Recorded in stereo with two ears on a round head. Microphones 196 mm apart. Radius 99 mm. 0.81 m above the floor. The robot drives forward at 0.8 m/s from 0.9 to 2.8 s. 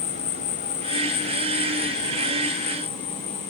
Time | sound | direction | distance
0.0 | an insect | 35° left (ahead or behind) | ?